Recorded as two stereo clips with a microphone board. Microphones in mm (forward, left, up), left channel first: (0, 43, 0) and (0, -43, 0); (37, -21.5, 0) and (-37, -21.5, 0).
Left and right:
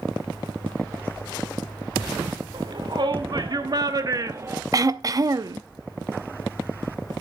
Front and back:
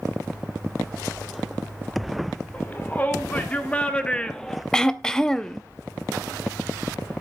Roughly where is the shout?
Ahead right.